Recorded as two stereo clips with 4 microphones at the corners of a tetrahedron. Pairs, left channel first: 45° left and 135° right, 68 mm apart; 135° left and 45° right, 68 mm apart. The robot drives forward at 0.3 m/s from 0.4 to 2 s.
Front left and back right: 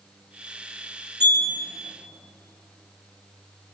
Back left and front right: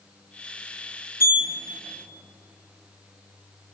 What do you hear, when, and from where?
1.2 s a sliding door: 90° left, 1.6 m; by 1.5 s 95° left, 1.6 m